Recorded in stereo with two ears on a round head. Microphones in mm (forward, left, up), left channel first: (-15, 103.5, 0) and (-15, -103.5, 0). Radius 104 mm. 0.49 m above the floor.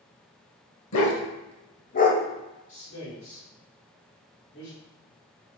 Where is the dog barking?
70° left (ahead or behind), 0.8 m; by 2.2 s 30° left (ahead or behind), 0.9 m.